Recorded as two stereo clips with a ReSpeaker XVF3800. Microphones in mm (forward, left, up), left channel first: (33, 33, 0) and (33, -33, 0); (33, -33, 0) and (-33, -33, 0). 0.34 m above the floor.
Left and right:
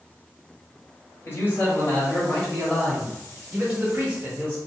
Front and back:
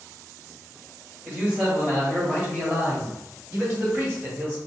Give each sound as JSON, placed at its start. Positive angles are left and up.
{"t": 1.2, "sound": "a man speaking", "azimuth_deg": 125, "distance_m": 1.8}